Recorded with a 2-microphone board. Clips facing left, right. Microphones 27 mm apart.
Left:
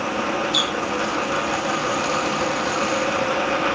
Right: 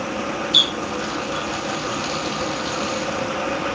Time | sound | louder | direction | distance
0.5 | a running tap | right 8 dB | 30° right (ahead or behind) | ?